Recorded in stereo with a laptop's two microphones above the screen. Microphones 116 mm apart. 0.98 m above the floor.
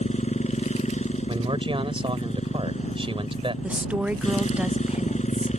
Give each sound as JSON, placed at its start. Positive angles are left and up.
{"t": 0.0, "sound": "a motorcycle", "side_deg": 80}
{"t": 1.3, "sound": "a man speaking", "side_deg": -50}
{"t": 3.6, "sound": "a woman speaking", "side_deg": -10}